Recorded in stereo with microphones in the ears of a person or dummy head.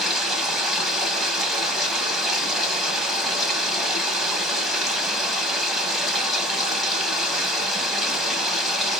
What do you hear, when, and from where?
0.0 s running water: centre (ahead or behind), 1.0 m